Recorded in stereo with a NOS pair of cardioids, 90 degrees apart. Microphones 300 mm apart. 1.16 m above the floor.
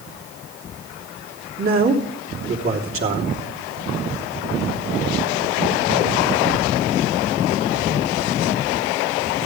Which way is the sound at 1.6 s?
45° right.